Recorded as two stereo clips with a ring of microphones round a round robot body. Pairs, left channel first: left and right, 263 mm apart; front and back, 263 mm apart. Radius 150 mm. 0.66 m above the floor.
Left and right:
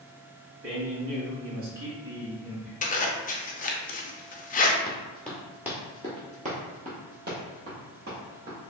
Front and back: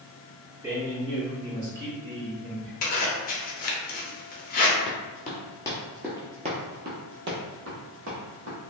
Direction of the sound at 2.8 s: 45° left.